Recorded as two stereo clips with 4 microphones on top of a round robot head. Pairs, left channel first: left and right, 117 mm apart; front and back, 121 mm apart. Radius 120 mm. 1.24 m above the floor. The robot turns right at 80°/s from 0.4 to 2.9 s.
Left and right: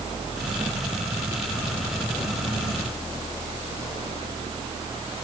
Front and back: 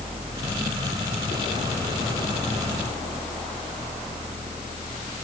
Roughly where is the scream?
I don't hear a scream.